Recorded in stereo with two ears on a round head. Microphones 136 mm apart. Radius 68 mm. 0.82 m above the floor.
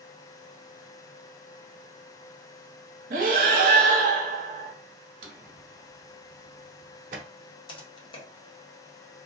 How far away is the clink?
I don't hear a clink.